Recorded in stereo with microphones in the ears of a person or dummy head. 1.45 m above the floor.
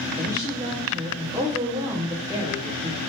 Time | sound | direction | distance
0.2 | a woman speaking | 15° right (ahead or behind) | 1.2 m